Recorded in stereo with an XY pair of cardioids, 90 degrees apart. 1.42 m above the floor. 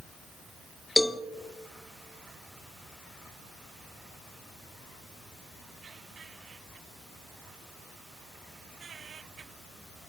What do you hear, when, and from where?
1.0 s a cowbell: 15° left, 0.7 m